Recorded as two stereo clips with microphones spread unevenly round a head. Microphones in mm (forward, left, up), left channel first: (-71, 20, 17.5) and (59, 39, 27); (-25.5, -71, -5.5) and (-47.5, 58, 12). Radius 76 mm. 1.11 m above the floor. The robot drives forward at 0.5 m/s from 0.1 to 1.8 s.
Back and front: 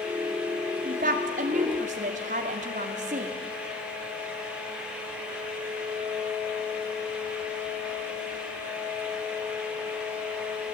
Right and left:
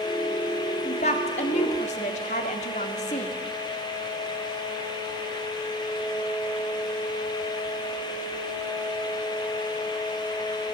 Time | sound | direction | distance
0.8 | a woman speaking | 30° right | 3 m